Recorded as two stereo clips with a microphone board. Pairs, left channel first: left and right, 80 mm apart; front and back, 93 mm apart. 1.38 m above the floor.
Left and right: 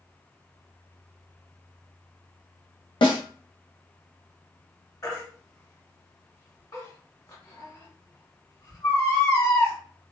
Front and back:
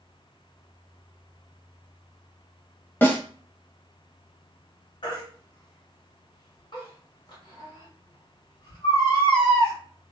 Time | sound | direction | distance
3.0 | a snare drum | 70° left | 0.7 m
5.0 | a baby crying | 40° left | 1.3 m